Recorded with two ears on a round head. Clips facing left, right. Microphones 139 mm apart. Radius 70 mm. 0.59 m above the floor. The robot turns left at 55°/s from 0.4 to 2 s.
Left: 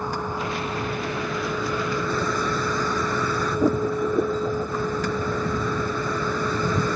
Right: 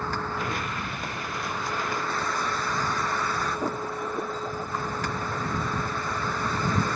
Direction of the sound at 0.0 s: 165° left.